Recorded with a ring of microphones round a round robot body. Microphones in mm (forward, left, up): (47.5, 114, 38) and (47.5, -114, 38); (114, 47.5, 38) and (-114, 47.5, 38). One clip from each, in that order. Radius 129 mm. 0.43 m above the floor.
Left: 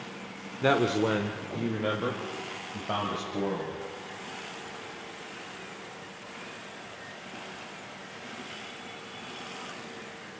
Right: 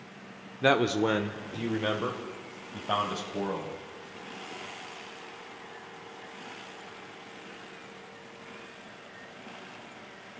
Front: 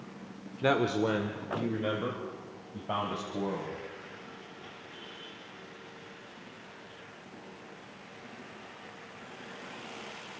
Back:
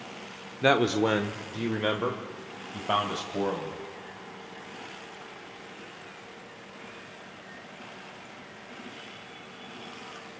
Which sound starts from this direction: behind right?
A man speaking, at 0.6 s.